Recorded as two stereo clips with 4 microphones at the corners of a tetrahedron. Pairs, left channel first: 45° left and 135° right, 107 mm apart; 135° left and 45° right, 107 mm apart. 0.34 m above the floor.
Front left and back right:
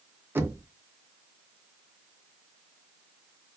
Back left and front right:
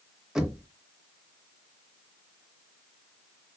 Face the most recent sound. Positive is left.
turn(degrees=-115)